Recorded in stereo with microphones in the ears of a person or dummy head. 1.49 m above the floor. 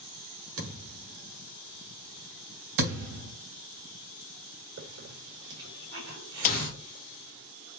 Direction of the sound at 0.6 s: 75° right (ahead or behind).